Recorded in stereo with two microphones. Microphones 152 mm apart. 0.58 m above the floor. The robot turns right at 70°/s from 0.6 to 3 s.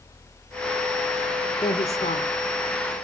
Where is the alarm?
I don't hear an alarm.